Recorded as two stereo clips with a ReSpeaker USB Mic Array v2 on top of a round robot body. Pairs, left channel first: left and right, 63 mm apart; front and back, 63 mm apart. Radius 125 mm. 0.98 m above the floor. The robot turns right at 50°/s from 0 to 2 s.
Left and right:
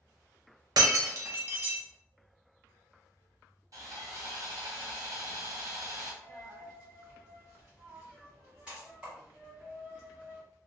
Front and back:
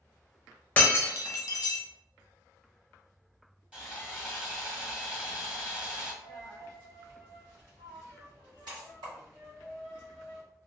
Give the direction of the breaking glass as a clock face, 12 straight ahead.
2 o'clock.